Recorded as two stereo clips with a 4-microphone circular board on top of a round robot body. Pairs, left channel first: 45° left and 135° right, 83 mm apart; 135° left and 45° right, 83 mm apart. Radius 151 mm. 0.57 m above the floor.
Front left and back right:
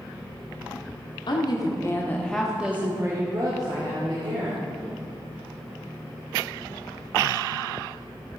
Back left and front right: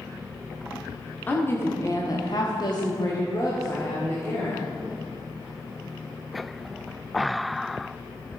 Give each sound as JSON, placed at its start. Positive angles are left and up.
{"t": 1.3, "sound": "a woman speaking", "azimuth_deg": 65, "distance_m": 1.9}